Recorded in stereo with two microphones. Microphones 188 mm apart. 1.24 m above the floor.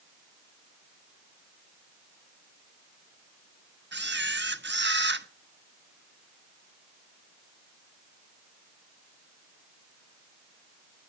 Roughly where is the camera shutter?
Right.